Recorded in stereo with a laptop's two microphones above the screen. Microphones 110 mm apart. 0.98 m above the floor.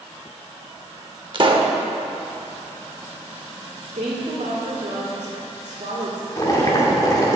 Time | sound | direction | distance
1.3 | a pop | 45° right (ahead or behind) | 0.9 m
3.9 | a woman speaking | 75° right (ahead or behind) | 2.0 m
6.4 | boiling | 30° left (ahead or behind) | 1.7 m